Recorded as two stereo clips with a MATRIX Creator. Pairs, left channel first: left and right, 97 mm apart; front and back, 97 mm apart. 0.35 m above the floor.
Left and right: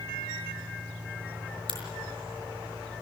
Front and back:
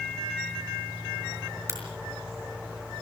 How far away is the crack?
About 6 m.